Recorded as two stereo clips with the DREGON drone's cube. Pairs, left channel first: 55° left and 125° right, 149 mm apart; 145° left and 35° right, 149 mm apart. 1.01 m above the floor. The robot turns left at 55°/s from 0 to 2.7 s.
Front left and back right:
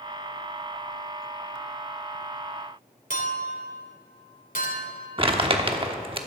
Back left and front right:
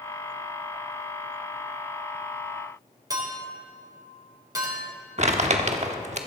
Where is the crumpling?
75° right, 1.1 m.